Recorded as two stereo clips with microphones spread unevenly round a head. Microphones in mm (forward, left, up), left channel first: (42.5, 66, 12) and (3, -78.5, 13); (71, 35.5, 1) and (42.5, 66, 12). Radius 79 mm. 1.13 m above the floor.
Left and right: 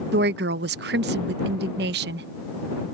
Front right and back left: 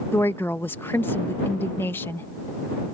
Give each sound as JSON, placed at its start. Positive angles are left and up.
{"t": 0.1, "sound": "a woman speaking", "azimuth_deg": -105}